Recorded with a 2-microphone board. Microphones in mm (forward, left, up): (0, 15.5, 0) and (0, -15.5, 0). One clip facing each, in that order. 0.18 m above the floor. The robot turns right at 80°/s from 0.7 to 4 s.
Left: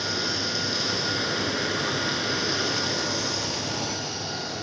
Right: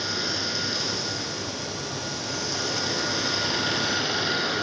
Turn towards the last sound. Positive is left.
turn(degrees=-95)